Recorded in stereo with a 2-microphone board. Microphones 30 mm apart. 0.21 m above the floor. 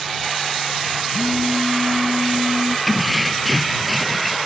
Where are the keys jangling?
15° left (ahead or behind).